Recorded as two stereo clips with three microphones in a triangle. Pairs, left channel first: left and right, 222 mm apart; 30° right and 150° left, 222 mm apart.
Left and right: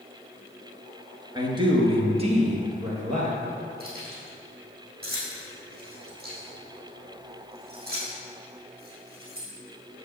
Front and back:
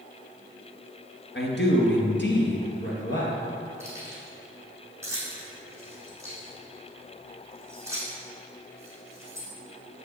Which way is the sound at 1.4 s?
25° right.